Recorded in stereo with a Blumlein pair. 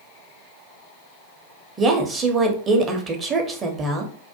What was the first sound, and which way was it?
A woman speaking, 20° right.